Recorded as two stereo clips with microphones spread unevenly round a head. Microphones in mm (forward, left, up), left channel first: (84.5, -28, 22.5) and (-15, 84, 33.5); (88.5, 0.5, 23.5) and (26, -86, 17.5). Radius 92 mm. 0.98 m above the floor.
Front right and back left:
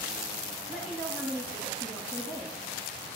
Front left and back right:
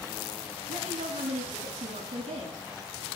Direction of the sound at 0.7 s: 140° right.